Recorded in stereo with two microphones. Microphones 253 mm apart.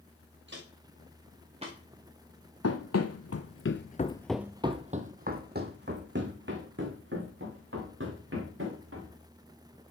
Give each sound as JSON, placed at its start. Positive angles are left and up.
{"t": 0.5, "sound": "footsteps", "side_deg": -45, "distance_m": 4.0}
{"t": 2.6, "sound": "running footsteps", "side_deg": 75, "distance_m": 1.2}